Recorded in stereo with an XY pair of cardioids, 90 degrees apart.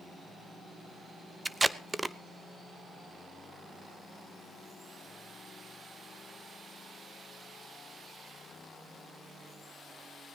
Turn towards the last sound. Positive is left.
turn(degrees=-20)